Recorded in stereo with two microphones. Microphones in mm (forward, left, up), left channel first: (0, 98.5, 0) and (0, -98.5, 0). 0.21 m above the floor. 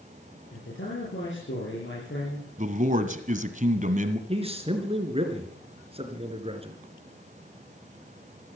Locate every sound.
0.5 s a man speaking: 75° left (ahead or behind), 6 m
2.6 s a man speaking: 40° right (ahead or behind), 1.5 m
4.3 s a man speaking: 30° right (ahead or behind), 3 m